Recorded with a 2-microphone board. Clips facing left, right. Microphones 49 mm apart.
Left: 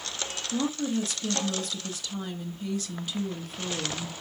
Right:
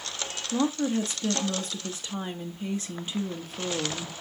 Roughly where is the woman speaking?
Right.